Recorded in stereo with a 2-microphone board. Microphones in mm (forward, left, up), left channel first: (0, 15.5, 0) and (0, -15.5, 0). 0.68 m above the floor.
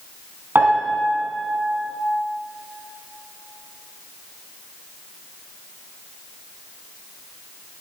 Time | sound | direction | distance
0.6 | a piano | 80° right | 3 m